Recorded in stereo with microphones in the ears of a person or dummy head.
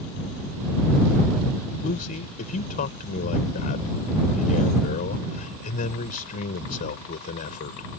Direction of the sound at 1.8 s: 45° left (ahead or behind).